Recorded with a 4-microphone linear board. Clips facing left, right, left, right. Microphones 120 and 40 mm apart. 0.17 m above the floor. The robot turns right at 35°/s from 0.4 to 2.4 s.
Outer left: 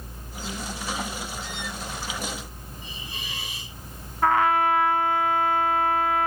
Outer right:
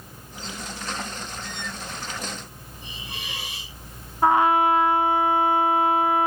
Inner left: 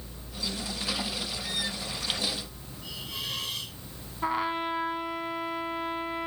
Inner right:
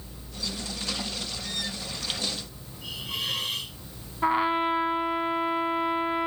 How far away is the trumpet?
About 0.9 m.